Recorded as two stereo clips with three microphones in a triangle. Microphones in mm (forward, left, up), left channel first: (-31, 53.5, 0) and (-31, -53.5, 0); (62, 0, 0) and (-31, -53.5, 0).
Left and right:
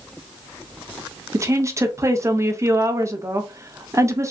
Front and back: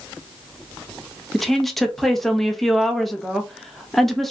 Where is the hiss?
No hiss in this recording.